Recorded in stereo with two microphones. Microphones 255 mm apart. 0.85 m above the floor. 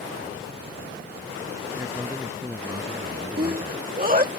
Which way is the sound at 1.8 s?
10° right (ahead or behind).